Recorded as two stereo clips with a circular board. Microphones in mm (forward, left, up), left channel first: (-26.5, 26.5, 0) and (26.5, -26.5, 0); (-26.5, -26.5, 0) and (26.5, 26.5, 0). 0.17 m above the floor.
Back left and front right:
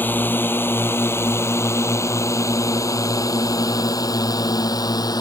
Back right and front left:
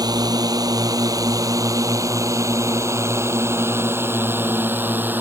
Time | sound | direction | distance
0.0 | a drone | 70° left | ?